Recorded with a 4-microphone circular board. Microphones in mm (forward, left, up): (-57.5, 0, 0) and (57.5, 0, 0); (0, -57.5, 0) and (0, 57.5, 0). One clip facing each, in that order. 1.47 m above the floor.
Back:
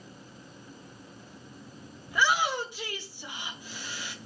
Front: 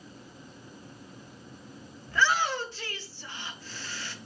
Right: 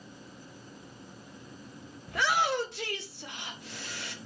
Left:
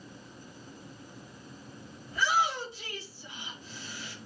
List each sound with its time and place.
2.1 s a shout: 105° right, 1.7 m